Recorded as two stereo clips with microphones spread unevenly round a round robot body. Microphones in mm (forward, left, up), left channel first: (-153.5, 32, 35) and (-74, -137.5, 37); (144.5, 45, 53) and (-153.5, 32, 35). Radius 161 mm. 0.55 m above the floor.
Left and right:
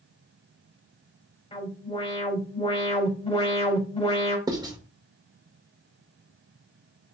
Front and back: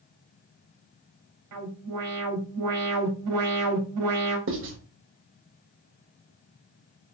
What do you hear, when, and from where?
1.5 s an alarm: 170° left, 4 m
4.5 s writing: 135° right, 1.8 m